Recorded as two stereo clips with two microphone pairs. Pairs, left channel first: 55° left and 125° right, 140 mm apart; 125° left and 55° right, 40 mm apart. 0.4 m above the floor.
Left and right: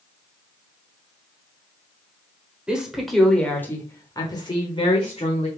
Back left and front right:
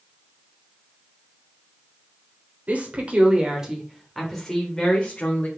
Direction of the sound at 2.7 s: 40° right.